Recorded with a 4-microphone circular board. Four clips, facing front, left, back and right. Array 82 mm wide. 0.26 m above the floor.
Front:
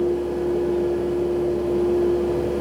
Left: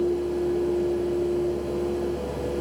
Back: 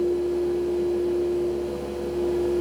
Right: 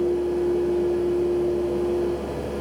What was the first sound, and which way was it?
Only background noise.